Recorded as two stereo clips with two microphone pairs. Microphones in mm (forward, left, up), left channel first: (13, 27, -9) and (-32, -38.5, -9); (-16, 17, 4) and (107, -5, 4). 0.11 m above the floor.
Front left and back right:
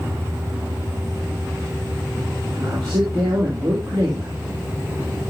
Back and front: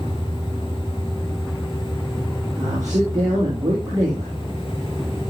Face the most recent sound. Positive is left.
turn(degrees=-70)